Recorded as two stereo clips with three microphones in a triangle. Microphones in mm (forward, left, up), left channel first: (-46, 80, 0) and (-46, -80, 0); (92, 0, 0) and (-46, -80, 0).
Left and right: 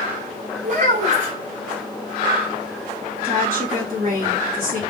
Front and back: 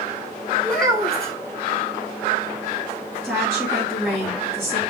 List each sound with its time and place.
0.6 s a child speaking: 55° right, 2.5 m
3.2 s a woman speaking: 65° right, 2.5 m